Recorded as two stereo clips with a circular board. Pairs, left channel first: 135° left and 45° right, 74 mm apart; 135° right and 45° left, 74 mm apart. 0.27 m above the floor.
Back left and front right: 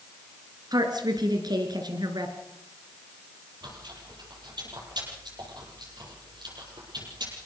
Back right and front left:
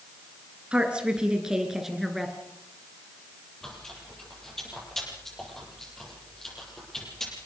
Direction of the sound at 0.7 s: 30° right.